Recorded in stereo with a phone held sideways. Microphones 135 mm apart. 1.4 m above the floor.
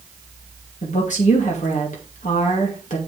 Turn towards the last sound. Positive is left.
turn(degrees=65)  # may be behind; listen again after turning